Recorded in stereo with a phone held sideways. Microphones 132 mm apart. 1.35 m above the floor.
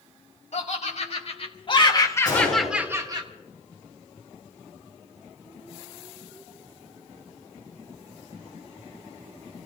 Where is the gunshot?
30° left (ahead or behind), 8 m.